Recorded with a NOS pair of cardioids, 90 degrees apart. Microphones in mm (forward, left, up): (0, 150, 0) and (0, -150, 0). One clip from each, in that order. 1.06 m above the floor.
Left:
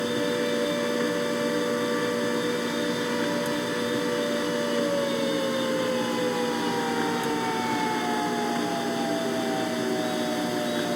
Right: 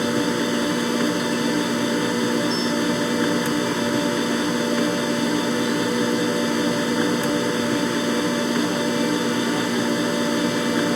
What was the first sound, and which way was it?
A machine running, 55° right.